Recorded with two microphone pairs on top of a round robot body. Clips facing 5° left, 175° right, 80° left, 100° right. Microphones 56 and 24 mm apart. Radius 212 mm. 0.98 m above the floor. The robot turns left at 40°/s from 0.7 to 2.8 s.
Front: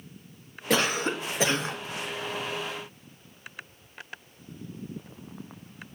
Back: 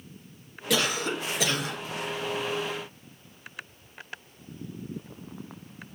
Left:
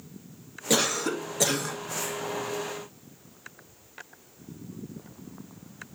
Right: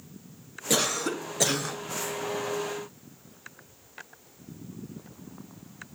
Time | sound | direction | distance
0.7 | a cough | straight ahead | 0.9 m